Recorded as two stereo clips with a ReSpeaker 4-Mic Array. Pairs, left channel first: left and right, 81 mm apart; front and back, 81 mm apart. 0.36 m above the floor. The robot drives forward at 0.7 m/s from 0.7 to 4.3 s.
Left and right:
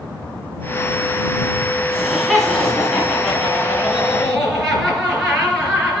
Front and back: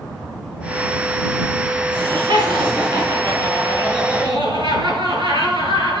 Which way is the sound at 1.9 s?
175° left.